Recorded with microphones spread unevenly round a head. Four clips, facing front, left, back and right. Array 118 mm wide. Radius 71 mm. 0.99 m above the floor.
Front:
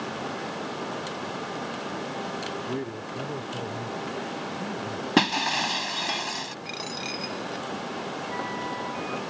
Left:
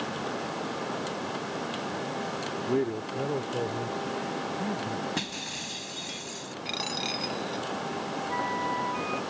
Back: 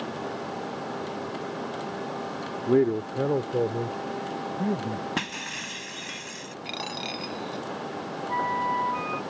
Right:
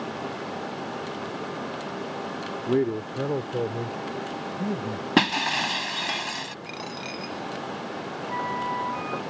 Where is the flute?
170° right.